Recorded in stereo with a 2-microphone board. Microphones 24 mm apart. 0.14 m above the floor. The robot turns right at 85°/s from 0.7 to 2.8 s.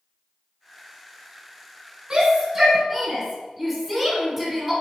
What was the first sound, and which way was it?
A shout, 35° right (ahead or behind).